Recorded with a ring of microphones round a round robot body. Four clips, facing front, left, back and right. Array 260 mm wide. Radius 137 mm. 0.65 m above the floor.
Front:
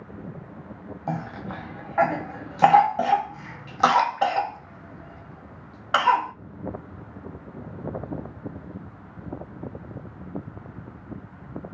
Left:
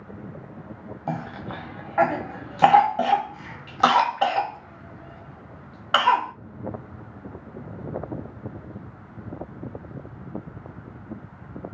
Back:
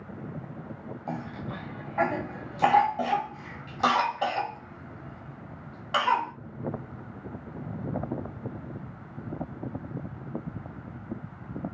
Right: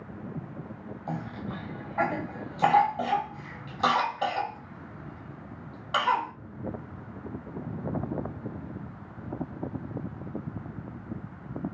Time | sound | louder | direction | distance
1.1 | a cough | left 5 dB, front 5 dB | 50° left | 1.0 m